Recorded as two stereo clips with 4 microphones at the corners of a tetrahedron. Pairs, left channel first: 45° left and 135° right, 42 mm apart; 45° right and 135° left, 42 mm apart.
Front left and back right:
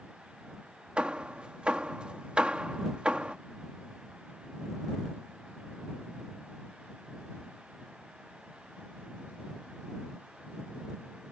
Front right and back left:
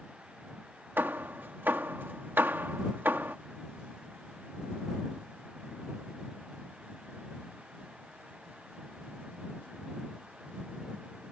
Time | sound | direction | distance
1.0 | hammering | 160° left | ?